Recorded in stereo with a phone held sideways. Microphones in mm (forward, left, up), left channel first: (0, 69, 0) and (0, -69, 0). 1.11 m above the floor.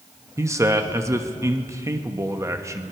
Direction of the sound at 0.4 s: 20° right (ahead or behind).